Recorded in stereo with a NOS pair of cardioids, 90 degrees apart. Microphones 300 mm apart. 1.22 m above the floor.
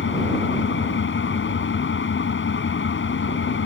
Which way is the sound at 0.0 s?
40° left.